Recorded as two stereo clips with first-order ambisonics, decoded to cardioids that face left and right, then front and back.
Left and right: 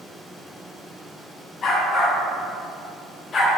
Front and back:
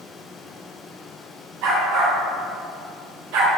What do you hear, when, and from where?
1.6 s a dog barking: 155° left, 3.5 m